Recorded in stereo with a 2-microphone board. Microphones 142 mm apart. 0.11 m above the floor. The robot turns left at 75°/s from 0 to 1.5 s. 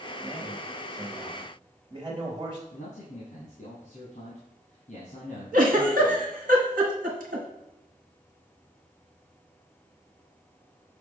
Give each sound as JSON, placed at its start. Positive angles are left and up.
{"t": 0.2, "sound": "a man speaking", "azimuth_deg": 50, "distance_m": 2.5}
{"t": 2.7, "sound": "a man speaking", "side_deg": 55, "distance_m": 2.5}
{"t": 5.5, "sound": "a giggle", "side_deg": -75, "distance_m": 1.6}